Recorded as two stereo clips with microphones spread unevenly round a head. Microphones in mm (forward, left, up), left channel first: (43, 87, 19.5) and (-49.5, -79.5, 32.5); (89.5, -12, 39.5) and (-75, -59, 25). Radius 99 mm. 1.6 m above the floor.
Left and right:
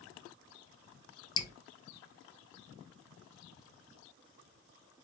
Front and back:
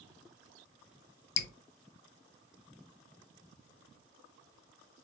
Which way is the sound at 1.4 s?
10° right.